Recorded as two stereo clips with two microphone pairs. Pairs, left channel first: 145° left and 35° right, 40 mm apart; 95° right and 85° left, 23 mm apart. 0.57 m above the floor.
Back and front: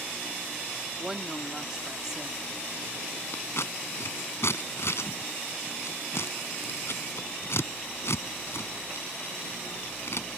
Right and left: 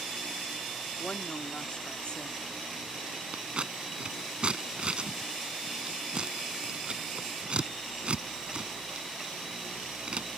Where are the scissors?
130° left.